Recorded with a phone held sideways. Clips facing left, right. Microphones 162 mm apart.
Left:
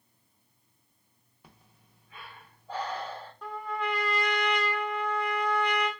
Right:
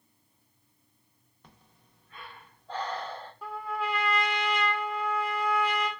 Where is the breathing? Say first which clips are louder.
Even; 10° left (ahead or behind), 0.7 m.